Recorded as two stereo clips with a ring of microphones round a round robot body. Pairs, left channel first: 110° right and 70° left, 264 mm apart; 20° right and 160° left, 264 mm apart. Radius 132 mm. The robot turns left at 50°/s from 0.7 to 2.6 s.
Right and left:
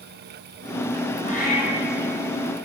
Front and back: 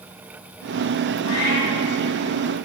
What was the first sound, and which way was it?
A cat meowing, 45° right.